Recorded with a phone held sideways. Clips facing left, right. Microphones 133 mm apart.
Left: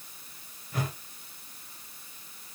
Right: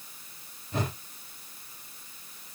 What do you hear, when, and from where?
0.7 s a whoosh: 25° right (ahead or behind), 3 m